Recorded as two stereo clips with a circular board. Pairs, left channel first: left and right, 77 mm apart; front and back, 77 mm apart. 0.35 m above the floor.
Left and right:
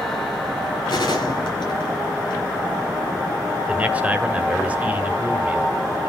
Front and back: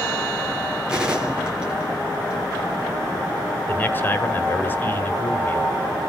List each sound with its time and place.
0.9 s a gunshot: 105° left, 4 m
3.7 s a man speaking: 35° right, 1.6 m